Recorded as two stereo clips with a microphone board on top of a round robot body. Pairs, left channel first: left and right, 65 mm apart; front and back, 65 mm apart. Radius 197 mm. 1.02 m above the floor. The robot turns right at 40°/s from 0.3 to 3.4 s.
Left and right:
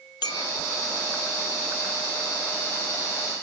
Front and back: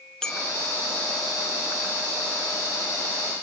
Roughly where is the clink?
Left.